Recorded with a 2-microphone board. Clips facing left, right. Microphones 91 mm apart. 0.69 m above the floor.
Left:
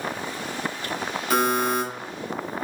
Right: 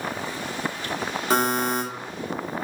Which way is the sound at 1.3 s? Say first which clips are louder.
Left 1 dB; 30° right (ahead or behind).